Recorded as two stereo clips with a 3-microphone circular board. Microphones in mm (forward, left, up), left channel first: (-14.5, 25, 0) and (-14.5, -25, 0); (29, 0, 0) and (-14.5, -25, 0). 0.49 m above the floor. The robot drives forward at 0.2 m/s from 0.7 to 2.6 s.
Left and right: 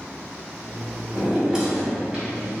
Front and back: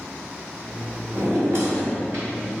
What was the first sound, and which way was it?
A drawer, 165° right.